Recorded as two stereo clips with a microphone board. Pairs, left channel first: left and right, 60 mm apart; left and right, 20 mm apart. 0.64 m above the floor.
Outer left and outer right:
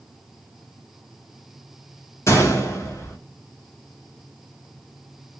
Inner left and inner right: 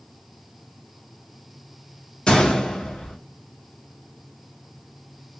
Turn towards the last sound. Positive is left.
turn(degrees=55)  # may be behind; listen again after turning